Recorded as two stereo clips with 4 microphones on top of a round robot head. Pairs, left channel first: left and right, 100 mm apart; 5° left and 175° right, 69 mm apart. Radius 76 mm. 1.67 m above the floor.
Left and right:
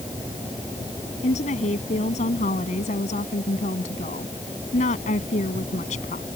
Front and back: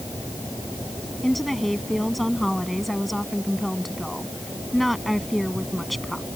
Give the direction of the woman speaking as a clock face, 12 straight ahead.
9 o'clock.